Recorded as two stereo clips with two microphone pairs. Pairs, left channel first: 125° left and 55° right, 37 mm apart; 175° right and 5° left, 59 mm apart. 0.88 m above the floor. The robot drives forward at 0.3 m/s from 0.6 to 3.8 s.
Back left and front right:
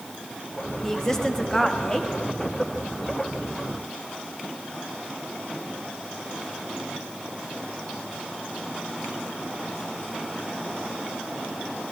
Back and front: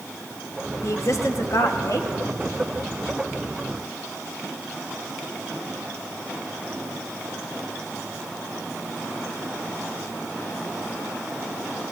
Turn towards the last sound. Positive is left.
turn(degrees=-170)